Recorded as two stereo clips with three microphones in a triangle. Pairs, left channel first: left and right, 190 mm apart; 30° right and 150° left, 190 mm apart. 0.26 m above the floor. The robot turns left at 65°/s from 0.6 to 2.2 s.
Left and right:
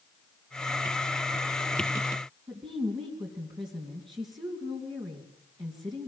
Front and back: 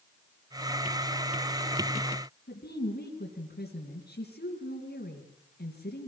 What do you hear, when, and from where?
2.5 s a woman speaking: 25° right, 3 m